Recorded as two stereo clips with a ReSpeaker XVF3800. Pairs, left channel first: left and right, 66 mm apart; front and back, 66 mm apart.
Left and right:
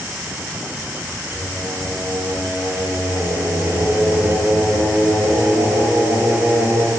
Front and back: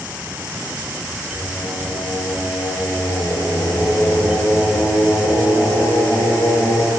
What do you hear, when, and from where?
1.3 s singing: 20° right, 9 m